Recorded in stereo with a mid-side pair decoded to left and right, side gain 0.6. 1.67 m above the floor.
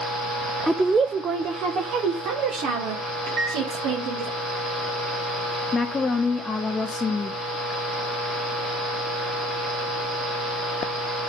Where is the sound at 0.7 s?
5° right, 0.6 m; by 4.3 s 80° right, 2.5 m.